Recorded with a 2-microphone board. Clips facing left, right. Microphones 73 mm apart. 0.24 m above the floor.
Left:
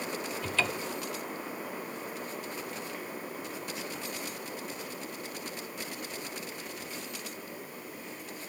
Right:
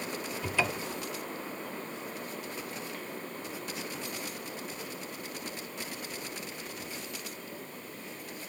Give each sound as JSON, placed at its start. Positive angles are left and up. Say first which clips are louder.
{"t": 0.4, "sound": "a cupboard door", "louder": "right 2 dB", "side_deg": -15, "distance_m": 0.5}